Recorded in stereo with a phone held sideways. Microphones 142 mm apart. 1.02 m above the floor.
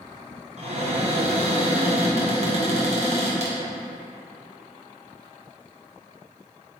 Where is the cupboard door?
50° right (ahead or behind), 0.8 m.